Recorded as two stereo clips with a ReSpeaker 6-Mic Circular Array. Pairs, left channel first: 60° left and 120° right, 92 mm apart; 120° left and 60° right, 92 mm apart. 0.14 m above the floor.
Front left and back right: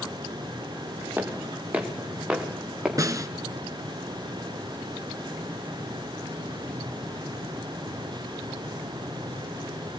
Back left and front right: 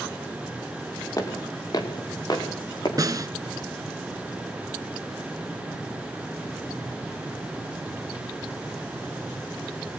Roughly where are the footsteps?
Behind.